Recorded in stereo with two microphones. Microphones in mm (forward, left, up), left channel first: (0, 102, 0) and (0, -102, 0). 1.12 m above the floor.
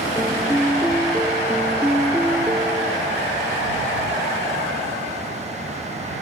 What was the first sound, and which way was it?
A piano, 5° right (ahead or behind).